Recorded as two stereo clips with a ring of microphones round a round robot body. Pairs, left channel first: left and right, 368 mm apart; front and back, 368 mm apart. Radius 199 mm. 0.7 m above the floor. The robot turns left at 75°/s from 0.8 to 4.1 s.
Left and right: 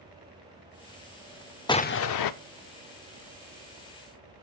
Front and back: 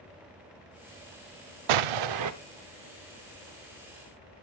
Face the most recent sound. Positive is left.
turn(degrees=-10)